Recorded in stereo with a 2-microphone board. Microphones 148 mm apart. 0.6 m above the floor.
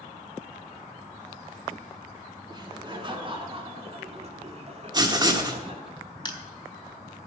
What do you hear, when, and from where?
2.5 s laughter: 30° right (ahead or behind), 2.5 m; by 5.9 s 45° right (ahead or behind), 1.9 m
4.9 s writing: 30° right (ahead or behind), 1.3 m
6.2 s crushing: 30° left (ahead or behind), 1.1 m